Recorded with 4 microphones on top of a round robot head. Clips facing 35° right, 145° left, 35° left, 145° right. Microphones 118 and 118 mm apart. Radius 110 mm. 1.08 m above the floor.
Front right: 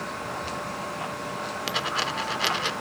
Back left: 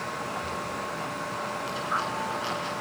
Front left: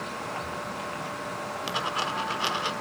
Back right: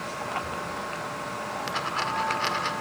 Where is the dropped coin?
40° right, 1.4 m.